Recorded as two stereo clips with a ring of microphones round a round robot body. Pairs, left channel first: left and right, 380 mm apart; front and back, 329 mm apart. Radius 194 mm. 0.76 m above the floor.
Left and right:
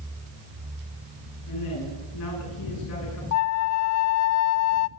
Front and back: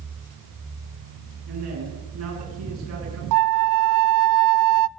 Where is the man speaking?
140° left, 9.5 m.